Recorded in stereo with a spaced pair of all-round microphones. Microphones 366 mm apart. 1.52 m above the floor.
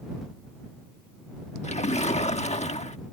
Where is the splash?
20° left (ahead or behind).